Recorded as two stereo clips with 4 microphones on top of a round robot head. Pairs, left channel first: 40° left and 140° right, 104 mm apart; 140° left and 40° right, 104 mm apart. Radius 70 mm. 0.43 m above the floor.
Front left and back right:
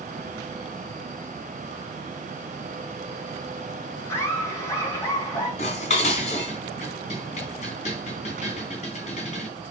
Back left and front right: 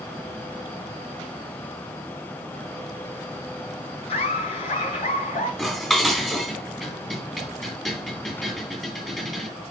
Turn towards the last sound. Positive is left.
turn(degrees=50)